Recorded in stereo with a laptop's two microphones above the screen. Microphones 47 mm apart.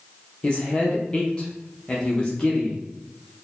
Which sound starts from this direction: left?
A man speaking, at 0.4 s.